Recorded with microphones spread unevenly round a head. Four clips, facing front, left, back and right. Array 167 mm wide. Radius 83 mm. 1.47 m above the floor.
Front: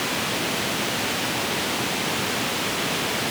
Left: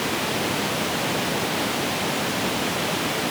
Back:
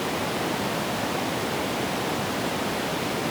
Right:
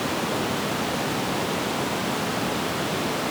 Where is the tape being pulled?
I don't hear tape being pulled.